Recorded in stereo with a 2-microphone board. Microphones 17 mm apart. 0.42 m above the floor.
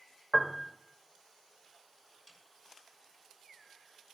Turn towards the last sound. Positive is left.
turn(degrees=15)  # may be behind; listen again after turning